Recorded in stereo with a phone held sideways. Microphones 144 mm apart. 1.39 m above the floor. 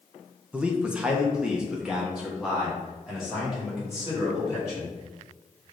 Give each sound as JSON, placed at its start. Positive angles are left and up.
{"t": 0.5, "sound": "a man speaking", "side_deg": -10, "distance_m": 0.5}